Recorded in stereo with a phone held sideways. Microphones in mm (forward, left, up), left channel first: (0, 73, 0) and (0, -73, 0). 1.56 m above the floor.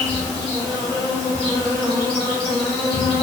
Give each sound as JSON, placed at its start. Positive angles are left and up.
{"t": 0.0, "sound": "an insect", "side_deg": 5, "distance_m": 1.7}